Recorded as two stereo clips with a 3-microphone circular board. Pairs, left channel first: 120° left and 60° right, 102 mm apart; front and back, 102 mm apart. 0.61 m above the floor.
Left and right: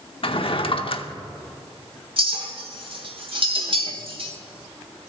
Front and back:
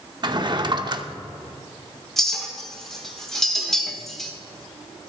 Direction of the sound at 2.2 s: 85° right.